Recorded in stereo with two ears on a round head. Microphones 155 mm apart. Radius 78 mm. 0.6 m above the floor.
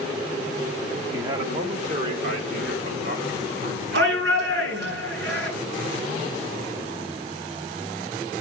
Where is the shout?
80° right, 8.5 m.